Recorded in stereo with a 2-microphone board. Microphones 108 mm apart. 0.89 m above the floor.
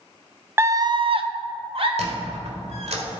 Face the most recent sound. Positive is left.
turn(degrees=-75)  # may be behind; listen again after turning